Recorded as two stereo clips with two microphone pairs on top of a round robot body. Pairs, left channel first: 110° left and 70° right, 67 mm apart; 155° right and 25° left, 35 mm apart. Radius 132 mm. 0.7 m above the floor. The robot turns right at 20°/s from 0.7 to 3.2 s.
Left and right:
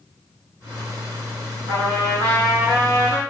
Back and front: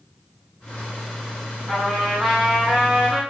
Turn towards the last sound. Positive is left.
turn(degrees=-45)